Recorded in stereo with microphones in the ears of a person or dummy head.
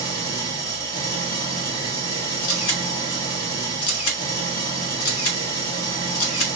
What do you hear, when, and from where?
0.0 s an engine running: 20° left (ahead or behind), 1.7 m
2.4 s a camera shutter: 85° left, 1.3 m